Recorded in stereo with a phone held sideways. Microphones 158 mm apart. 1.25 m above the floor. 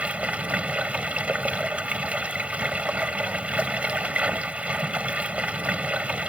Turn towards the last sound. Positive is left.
turn(degrees=-10)  # may be behind; listen again after turning